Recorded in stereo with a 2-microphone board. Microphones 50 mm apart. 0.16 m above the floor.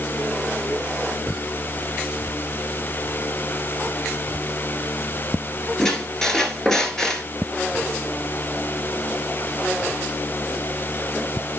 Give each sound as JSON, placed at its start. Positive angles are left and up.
{"t": 5.8, "sound": "a squeak", "side_deg": 15, "distance_m": 1.7}